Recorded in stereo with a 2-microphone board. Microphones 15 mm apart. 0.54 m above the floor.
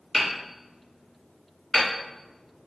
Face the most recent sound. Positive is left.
turn(degrees=15)  # may be behind; listen again after turning